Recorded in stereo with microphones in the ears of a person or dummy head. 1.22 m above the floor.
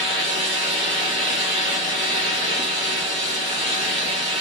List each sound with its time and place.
0.0 s a fan: 5° left (ahead or behind), 2 m